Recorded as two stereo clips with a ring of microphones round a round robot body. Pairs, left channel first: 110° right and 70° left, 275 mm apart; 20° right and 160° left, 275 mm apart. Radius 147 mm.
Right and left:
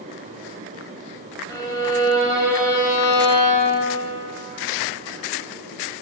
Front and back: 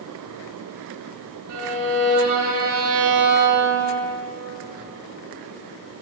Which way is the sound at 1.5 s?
170° left.